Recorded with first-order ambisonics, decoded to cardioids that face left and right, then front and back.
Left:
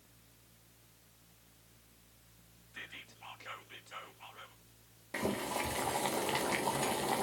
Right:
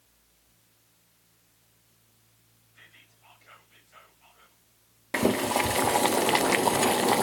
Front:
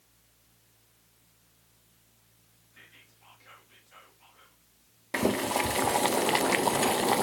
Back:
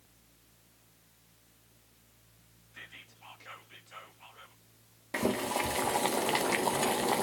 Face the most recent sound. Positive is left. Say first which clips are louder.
# right 11 dB, front 4 dB
turn(degrees=-65)